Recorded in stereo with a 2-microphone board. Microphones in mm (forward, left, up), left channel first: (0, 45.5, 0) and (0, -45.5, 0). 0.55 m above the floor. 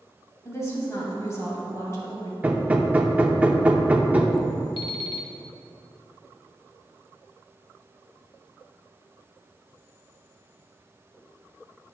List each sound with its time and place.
0.5 s a woman speaking: 30° left (ahead or behind), 3 m
2.4 s hammering: 15° right (ahead or behind), 0.7 m
4.8 s an alarm clock: 65° left (ahead or behind), 0.9 m